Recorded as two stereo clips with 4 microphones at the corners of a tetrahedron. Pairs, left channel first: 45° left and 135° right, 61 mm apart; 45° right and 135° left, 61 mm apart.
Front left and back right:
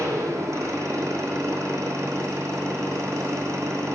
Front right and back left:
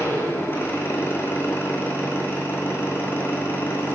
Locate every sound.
0.0 s an engine running: 100° right, 6 m